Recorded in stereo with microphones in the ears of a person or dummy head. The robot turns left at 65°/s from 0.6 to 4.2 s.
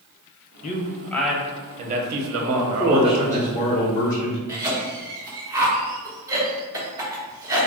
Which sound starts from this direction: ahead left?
A man speaking, at 0.6 s.